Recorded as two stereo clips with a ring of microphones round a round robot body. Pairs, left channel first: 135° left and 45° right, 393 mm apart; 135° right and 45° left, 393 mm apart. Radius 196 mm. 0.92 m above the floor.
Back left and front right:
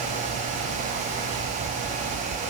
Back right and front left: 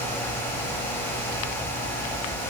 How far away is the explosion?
No explosion in this recording.